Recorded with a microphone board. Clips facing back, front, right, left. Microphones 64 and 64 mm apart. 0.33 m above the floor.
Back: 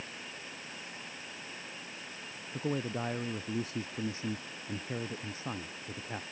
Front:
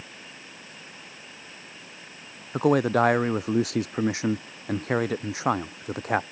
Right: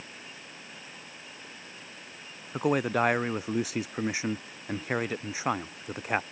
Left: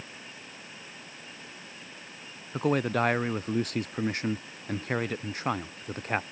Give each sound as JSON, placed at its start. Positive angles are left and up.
{"t": 2.5, "sound": "a man speaking", "azimuth_deg": -5}